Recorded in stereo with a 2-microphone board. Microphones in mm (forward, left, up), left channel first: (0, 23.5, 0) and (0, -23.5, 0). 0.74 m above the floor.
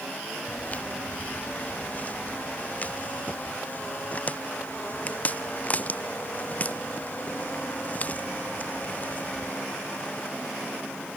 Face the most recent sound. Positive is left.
turn(degrees=35)  # may be behind; listen again after turning